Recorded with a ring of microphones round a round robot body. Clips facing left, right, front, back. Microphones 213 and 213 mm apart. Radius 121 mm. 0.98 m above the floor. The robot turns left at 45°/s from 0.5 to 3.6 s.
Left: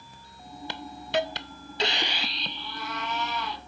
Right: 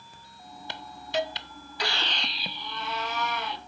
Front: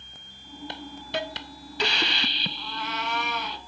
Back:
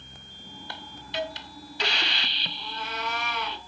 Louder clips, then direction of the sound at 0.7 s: Left 3 dB, front 5 dB; 75° left.